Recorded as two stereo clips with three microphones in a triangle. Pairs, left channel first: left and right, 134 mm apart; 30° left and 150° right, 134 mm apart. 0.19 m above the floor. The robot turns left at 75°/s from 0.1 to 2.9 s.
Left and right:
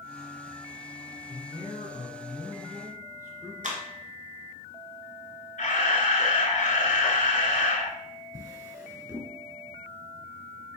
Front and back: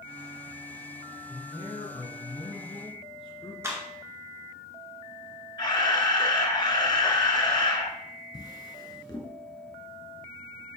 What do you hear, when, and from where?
1.3 s a man speaking: 95° left, 2.0 m; by 3.5 s 25° right, 2.0 m
3.6 s a clap: 80° right, 2 m
5.6 s a camera shutter: 85° left, 1.4 m
8.3 s a drawer: 30° right, 1.8 m